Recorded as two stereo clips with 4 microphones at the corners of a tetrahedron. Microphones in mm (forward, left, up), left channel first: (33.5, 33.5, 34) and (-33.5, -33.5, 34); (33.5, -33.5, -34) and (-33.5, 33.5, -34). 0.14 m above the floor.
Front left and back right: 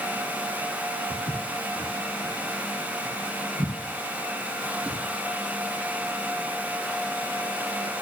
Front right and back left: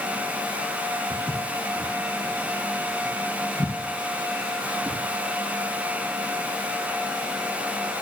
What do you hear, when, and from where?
1.1 s footsteps: 125° right, 2.5 m; by 5.0 s 165° right, 3.5 m